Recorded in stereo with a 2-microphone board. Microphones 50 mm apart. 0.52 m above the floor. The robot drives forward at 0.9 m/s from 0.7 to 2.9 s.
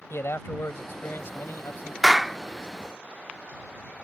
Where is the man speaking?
60° left (ahead or behind); by 1.9 s 50° left (ahead or behind).